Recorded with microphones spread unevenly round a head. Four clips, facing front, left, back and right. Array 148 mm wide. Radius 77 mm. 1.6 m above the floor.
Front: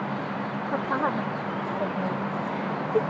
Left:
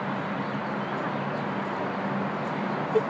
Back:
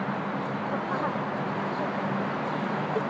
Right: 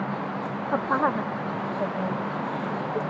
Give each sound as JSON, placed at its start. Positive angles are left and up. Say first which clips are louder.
{"t": 0.7, "sound": "a woman speaking", "louder": "right 6 dB, front 5 dB", "azimuth_deg": -70}